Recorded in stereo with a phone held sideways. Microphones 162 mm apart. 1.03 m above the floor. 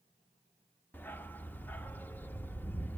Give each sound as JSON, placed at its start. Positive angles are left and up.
{"t": 0.9, "sound": "a dog barking", "side_deg": 10, "distance_m": 0.6}